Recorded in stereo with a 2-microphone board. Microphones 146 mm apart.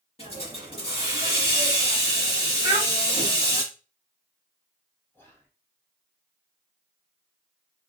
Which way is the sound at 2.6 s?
20° right (ahead or behind).